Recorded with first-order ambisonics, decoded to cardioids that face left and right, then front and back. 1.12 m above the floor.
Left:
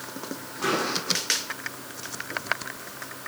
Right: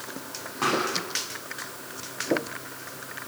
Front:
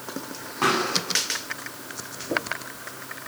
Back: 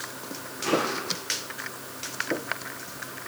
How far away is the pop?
About 9 m.